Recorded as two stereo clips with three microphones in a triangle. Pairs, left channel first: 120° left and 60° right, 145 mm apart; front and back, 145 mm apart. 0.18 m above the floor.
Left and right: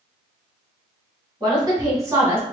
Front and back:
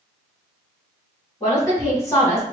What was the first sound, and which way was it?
A woman speaking, 40° right.